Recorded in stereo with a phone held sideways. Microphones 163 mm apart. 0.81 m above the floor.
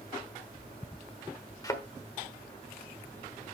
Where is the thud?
20° left (ahead or behind), 1.3 m.